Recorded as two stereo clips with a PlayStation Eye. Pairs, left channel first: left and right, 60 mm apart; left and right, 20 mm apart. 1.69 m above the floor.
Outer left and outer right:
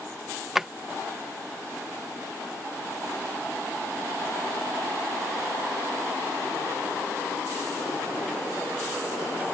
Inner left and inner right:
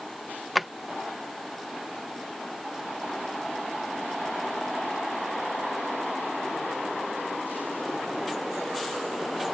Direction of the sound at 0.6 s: 5° right (ahead or behind).